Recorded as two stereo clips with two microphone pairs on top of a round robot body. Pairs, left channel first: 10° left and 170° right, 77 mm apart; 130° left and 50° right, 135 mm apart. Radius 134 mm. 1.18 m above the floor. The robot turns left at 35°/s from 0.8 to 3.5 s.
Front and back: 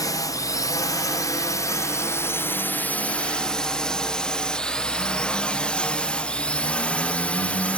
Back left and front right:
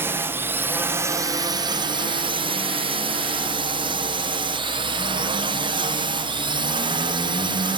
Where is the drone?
15° left; by 7.8 s 55° right.